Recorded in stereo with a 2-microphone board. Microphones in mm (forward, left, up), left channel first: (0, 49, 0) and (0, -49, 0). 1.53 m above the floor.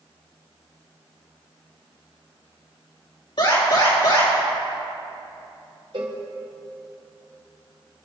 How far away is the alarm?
About 4.5 m.